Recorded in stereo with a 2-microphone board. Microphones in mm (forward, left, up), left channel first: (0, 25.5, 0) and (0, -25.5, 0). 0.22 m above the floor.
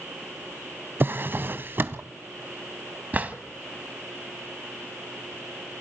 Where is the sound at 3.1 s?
35° right (ahead or behind), 0.8 m.